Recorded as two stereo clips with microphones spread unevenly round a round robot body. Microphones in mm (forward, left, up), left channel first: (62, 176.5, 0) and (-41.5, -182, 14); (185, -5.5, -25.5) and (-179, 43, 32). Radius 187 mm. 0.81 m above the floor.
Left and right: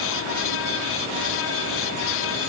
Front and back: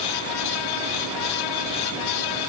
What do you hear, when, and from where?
Only background noise.